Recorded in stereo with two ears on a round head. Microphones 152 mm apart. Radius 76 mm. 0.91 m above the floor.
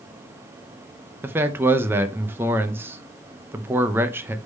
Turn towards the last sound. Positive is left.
turn(degrees=-15)  # may be behind; listen again after turning